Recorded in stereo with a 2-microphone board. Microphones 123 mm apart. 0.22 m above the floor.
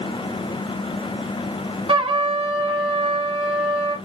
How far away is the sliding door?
No sliding door in this recording.